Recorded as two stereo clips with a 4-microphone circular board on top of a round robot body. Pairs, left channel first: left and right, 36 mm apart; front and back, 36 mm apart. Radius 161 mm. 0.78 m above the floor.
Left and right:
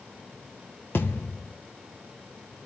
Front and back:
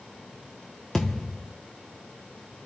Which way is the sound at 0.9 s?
80° left.